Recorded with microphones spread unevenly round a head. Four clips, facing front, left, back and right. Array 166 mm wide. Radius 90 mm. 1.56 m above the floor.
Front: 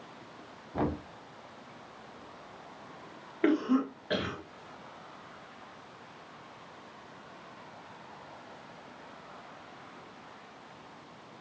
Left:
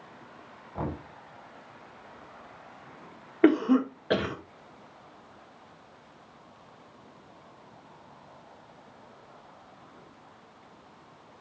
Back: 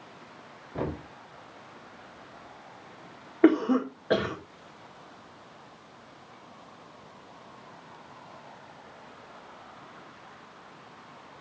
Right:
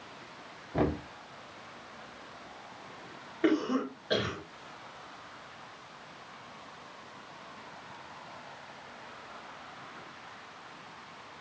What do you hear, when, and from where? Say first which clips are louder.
0.7 s knocking: right 5 dB, front 1 dB; 75° right, 3 m
3.4 s a cough: left 7 dB, back 5 dB; 145° left, 2 m